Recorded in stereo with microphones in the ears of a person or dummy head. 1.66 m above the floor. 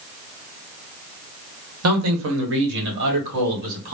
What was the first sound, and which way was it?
A man speaking, 85° right.